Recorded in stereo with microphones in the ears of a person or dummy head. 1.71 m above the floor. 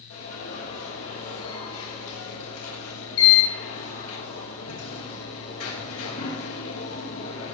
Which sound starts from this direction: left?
An alarm, at 0.1 s.